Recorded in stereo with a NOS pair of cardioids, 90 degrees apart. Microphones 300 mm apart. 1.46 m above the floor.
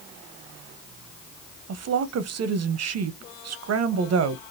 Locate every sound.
1.7 s a woman speaking: 55° right, 0.9 m